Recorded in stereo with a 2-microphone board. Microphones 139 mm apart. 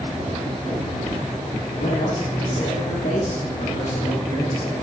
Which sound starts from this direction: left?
A man speaking, at 1.8 s.